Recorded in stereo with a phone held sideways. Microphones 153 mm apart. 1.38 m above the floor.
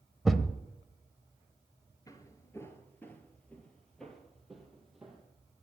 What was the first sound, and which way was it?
A thud, centre (ahead or behind).